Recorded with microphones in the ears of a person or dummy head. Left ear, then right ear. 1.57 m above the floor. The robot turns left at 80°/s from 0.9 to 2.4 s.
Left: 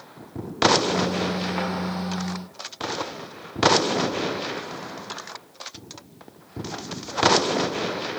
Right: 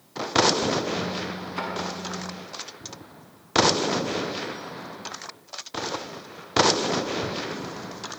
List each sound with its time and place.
1.6 s a thud: 15° left (ahead or behind), 5.5 m; by 1.7 s 25° left (ahead or behind), 5.5 m